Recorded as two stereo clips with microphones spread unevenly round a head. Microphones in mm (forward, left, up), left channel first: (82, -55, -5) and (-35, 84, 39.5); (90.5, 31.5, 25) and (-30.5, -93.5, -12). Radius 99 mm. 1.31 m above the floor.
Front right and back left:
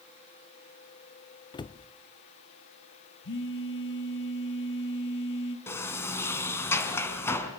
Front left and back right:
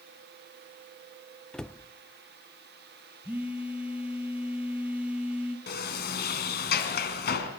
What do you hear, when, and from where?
1.5 s a cupboard door: 55° right, 0.5 m
3.2 s a phone buzzing: 55° right, 2.5 m
5.7 s a sliding door: 30° left, 3 m